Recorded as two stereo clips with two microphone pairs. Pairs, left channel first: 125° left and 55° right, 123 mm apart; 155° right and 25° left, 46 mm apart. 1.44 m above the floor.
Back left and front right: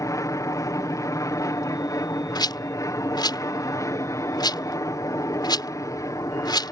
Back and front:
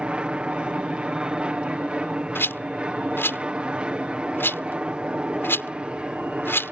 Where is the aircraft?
80° left.